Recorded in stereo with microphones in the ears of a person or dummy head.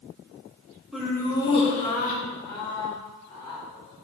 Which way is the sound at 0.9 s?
Centre (ahead or behind).